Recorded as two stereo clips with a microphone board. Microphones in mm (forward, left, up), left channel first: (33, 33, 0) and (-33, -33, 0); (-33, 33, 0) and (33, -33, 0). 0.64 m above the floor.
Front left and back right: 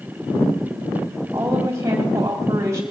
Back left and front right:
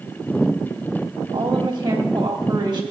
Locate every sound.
1.3 s a woman speaking: 85° right, 3 m